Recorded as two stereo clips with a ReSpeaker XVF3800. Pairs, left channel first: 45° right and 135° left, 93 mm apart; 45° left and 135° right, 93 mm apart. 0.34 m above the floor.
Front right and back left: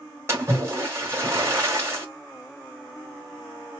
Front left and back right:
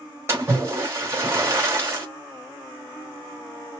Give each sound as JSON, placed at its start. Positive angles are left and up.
{"t": 0.3, "sound": "a splash", "azimuth_deg": 180, "distance_m": 1.7}